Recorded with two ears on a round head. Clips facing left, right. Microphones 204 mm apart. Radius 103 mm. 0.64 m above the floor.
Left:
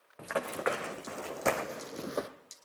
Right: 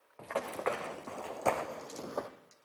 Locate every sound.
0.2 s running footsteps: 15° left (ahead or behind), 2.0 m; by 2.3 s 25° left (ahead or behind), 0.9 m